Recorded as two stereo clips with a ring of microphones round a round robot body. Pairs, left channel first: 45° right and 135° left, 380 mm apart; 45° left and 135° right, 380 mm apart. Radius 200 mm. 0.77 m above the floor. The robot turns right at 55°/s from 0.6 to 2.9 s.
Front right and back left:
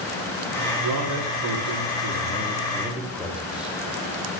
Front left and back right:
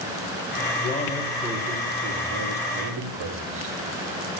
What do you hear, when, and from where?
0.8 s a man speaking: 105° left, 2.5 m; by 3.8 s 140° right, 2.5 m